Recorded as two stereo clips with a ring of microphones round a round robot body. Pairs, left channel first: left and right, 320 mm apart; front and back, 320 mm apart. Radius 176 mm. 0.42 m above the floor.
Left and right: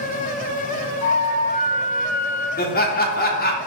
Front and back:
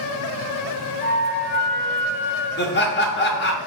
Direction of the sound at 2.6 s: 40° left.